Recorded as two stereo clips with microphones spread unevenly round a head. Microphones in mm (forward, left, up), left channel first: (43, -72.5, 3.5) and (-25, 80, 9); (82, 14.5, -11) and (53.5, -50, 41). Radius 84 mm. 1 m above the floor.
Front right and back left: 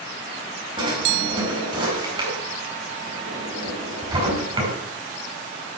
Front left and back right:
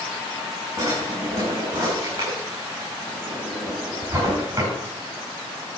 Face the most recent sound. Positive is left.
turn(degrees=175)